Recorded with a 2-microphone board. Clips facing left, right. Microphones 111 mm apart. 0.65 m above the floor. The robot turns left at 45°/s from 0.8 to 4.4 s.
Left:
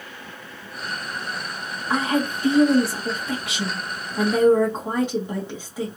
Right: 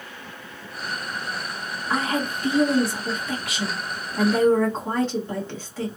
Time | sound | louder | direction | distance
1.9 | a woman speaking | left 3 dB | 15° left (ahead or behind) | 1.0 m